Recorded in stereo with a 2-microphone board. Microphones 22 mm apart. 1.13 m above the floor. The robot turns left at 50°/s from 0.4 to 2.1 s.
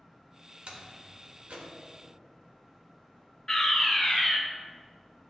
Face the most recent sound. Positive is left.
turn(degrees=25)  # may be behind; listen again after turning